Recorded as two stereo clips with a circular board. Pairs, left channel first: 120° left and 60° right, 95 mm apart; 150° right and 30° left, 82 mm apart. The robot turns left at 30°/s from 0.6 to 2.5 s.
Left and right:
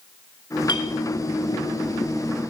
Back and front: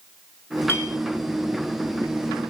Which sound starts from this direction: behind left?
A clink, at 0.7 s.